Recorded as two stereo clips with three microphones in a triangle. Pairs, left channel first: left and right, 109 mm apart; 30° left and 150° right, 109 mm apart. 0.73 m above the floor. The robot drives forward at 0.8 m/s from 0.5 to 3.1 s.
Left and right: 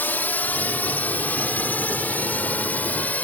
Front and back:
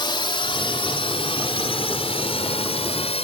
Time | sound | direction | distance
0.0 | a drone | 25° left | ?